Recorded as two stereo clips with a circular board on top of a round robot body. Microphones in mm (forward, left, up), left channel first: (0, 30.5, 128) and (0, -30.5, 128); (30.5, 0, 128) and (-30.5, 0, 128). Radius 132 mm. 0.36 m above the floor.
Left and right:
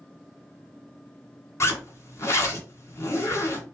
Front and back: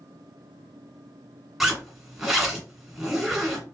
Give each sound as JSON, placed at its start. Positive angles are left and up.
{"t": 1.6, "sound": "a zipper", "azimuth_deg": 100, "distance_m": 1.9}